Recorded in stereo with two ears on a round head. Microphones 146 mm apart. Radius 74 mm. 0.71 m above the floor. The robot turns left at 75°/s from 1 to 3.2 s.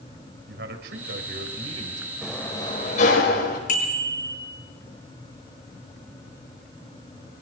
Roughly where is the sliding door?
Behind.